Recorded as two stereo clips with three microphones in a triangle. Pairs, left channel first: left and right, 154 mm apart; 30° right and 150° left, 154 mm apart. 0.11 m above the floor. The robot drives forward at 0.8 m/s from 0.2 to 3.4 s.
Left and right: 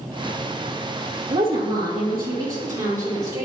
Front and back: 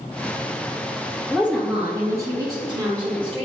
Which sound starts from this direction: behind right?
A woman speaking, at 1.3 s.